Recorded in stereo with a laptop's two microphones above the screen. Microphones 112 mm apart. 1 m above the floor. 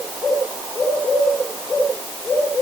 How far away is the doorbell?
I don't hear a doorbell.